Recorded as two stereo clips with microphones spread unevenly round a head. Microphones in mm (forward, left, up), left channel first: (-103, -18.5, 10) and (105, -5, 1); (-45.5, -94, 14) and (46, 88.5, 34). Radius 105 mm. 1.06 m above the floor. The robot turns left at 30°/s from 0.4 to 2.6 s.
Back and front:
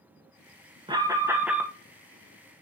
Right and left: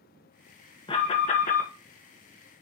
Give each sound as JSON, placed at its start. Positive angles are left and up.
{"t": 0.9, "sound": "an alarm", "azimuth_deg": -60, "distance_m": 1.8}